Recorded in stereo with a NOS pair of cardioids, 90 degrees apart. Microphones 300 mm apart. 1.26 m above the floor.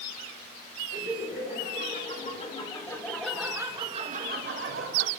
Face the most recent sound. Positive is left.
turn(degrees=-55)